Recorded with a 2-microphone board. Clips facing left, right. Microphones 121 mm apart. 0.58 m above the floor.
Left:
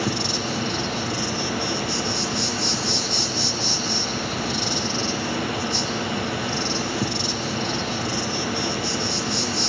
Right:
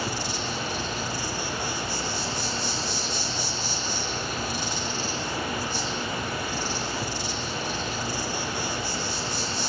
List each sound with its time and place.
0.0 s an insect: 75° left (ahead or behind), 4.5 m